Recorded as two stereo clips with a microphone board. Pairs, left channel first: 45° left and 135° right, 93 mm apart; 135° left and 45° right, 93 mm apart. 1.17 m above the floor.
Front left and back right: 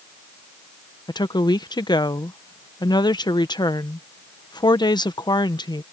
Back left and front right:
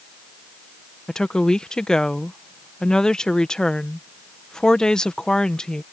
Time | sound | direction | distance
1.1 | a woman speaking | 55° left | ?